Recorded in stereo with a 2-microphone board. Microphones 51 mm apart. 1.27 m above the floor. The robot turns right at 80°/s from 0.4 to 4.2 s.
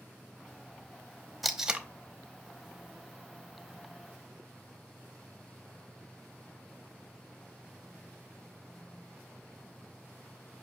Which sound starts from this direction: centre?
Tape being pulled, at 1.4 s.